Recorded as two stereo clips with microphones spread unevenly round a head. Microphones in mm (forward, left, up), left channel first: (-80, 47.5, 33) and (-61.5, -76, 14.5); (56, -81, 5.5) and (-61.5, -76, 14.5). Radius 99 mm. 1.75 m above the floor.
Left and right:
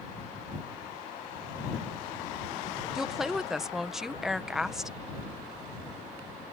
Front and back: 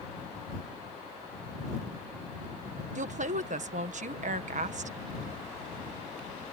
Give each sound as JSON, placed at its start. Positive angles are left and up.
{"t": 3.0, "sound": "a woman speaking", "azimuth_deg": -170}